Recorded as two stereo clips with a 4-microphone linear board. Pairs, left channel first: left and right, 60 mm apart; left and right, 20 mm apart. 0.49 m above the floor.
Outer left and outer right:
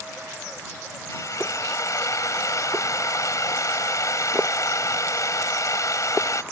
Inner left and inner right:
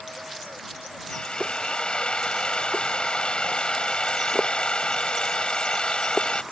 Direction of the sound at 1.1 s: 65° left (ahead or behind).